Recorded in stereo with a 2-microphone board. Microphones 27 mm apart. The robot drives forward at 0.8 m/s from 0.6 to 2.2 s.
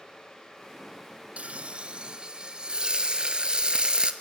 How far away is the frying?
About 1.0 m.